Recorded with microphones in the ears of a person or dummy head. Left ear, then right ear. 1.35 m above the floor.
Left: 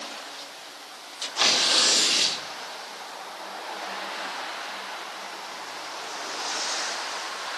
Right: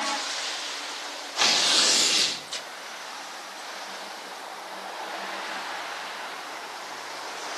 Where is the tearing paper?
Centre (ahead or behind), 4 m.